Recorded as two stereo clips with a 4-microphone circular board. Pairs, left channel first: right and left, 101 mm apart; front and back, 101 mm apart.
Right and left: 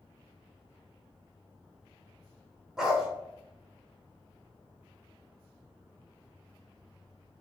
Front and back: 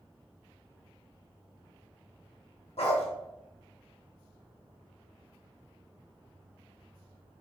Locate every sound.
2.8 s a dog barking: 5° left, 0.9 m